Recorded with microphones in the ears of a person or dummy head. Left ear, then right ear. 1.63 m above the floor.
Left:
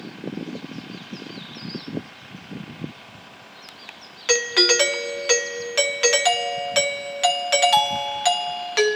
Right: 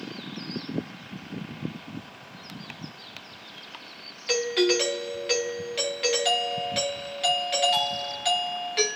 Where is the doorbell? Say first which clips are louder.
Left 5 dB; 40° left (ahead or behind), 0.6 m.